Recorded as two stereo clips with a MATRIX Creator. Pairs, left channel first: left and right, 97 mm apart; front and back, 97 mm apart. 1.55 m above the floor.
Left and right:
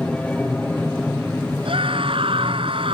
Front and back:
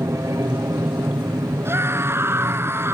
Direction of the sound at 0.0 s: 160° left.